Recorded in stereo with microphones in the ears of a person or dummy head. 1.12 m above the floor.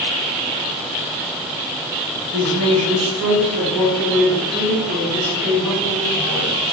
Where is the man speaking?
55° right (ahead or behind), 1.1 m; by 6.5 s 70° right (ahead or behind), 3 m.